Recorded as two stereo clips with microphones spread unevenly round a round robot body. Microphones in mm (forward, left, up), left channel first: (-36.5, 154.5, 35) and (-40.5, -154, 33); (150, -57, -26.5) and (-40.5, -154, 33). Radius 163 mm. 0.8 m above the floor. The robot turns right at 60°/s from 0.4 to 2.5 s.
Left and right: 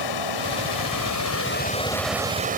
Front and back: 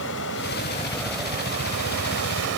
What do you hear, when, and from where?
0.0 s running water: 80° left; by 2.6 s 155° right